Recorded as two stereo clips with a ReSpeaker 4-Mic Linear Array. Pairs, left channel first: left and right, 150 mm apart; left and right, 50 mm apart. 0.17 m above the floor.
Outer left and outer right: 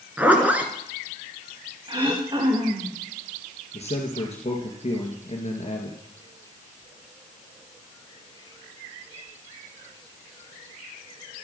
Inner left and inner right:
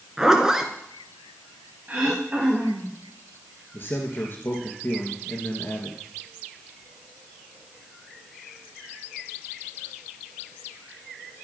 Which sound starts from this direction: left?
A man speaking, at 3.7 s.